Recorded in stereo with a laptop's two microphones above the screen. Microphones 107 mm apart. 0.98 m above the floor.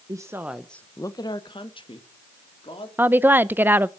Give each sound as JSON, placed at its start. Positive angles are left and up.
{"t": 0.1, "sound": "a woman speaking", "side_deg": -35, "distance_m": 1.0}
{"t": 3.0, "sound": "a woman speaking", "side_deg": -20, "distance_m": 0.5}